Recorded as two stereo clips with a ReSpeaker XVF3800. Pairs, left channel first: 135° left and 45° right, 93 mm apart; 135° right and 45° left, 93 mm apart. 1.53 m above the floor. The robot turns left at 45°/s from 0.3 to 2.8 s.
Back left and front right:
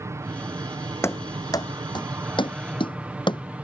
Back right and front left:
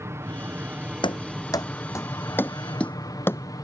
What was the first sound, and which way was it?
An aircraft, straight ahead.